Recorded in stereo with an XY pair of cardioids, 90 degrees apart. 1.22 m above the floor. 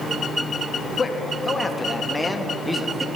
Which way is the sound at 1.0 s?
30° left.